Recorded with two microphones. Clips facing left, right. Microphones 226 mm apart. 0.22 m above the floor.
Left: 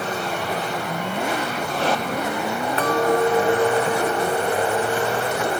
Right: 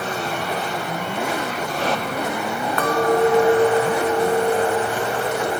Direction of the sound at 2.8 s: 30° left (ahead or behind).